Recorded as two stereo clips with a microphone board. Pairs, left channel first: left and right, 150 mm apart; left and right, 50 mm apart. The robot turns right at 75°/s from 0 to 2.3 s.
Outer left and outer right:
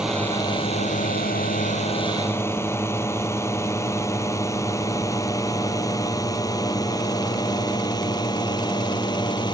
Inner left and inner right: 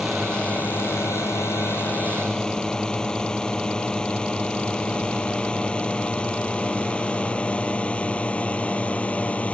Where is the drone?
5° right (ahead or behind); by 9.6 s 30° left (ahead or behind).